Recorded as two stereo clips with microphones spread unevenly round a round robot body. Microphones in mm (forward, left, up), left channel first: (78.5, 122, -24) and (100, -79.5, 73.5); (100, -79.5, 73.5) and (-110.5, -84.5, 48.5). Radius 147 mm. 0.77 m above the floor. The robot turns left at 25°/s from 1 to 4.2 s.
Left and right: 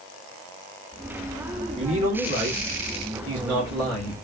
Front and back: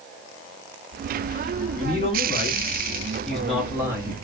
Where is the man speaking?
50° right, 1.6 m; by 4.1 s 110° right, 1.6 m.